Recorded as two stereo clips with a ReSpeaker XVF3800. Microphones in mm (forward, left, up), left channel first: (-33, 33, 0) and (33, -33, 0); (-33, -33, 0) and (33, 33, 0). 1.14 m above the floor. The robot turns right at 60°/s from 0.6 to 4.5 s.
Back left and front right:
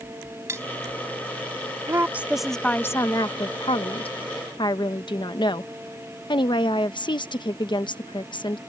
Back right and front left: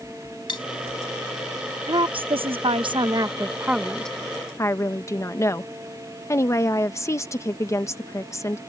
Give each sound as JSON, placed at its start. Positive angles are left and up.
{"t": 0.5, "sound": "cutlery clinking", "azimuth_deg": -105}
{"t": 1.9, "sound": "a woman speaking", "azimuth_deg": 10}